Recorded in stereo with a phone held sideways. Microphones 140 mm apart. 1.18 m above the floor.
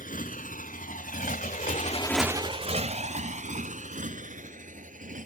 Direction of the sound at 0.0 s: 75° left (ahead or behind).